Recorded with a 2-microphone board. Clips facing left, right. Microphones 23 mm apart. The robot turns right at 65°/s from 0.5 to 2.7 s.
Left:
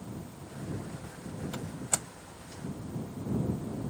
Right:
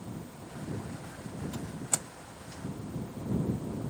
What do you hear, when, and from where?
1.5 s a door slam: 45° left (ahead or behind); by 2.1 s 10° left (ahead or behind)